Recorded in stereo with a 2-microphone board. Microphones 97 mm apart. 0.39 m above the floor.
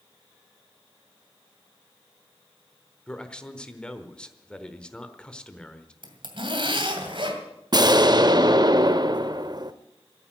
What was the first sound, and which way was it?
A man speaking, 10° left (ahead or behind).